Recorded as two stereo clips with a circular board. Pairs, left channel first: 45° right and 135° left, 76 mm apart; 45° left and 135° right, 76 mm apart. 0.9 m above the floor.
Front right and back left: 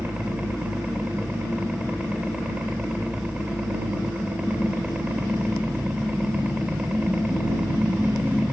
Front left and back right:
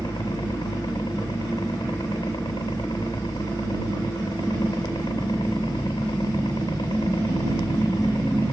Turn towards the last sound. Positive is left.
turn(degrees=60)